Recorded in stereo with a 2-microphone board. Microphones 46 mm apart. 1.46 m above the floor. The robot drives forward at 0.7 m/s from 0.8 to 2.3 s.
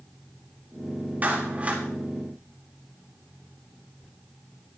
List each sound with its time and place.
1.2 s a clap: 40° right (ahead or behind), 3 m; by 1.8 s 35° right (ahead or behind), 3 m